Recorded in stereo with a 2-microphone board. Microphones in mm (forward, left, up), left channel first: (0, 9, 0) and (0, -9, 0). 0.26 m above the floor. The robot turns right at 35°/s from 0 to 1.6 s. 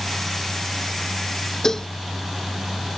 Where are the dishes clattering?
30° left (ahead or behind).